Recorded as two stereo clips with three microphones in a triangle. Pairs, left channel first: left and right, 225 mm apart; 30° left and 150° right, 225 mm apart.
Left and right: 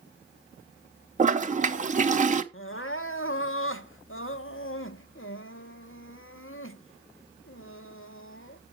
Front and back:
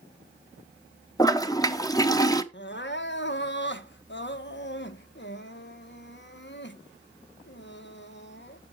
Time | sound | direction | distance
1.2 | a toilet flushing | 45° right | 0.7 m
2.5 | crying | 65° left | 0.6 m